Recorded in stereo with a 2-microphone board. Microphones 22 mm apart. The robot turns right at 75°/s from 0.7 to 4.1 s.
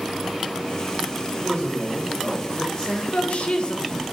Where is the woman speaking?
95° left, 1.0 m; by 3.9 s 155° left, 1.0 m.